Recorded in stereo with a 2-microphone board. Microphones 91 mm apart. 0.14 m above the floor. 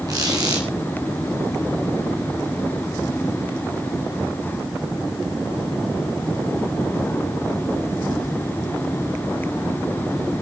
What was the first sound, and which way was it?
A squeak, 45° right (ahead or behind).